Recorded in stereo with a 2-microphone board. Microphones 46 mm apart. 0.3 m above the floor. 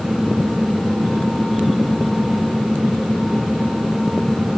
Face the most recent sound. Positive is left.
No sound to turn to.